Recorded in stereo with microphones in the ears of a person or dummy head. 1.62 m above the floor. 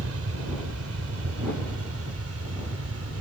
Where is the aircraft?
80° right; by 3.2 s 75° right (ahead or behind).